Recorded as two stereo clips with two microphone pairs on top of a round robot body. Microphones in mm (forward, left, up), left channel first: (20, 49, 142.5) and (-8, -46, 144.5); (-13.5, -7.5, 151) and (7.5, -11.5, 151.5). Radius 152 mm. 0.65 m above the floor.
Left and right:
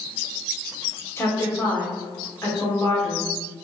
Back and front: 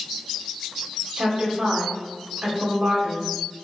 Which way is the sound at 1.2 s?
10° left.